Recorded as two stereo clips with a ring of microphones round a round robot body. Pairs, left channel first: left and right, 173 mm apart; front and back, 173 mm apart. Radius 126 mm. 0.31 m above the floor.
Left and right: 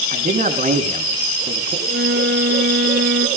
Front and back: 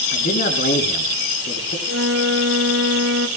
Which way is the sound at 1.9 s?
145° right.